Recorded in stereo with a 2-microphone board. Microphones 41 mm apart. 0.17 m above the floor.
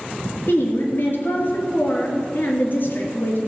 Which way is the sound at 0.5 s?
50° left (ahead or behind).